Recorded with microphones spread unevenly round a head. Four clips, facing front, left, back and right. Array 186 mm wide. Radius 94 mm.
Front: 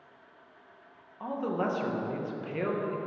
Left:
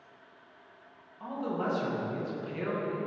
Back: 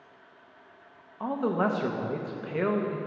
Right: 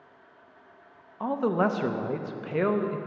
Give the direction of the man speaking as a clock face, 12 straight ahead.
4 o'clock.